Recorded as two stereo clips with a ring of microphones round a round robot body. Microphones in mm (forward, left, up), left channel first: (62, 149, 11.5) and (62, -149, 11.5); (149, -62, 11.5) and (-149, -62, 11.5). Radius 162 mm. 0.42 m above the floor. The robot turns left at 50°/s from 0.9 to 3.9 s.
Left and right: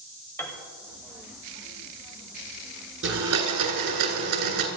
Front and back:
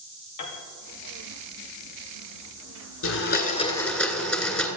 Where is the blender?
45° right, 1.8 m; by 4.7 s 85° right, 1.8 m.